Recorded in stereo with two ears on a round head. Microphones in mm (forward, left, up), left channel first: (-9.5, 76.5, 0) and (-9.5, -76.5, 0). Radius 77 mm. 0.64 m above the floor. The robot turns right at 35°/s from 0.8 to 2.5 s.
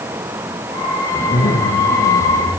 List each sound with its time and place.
1.1 s a zipper: 65° left, 4.5 m; by 2.5 s 115° left, 4.5 m